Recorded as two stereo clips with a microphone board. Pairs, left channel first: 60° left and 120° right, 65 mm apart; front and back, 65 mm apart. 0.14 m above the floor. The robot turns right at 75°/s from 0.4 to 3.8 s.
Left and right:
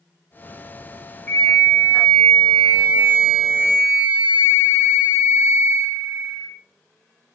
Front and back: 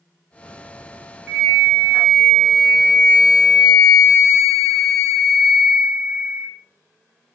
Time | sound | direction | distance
1.3 | a flute | 110° left | 1.6 m